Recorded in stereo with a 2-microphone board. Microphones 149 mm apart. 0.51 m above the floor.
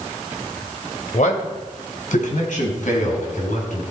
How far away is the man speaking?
About 2 m.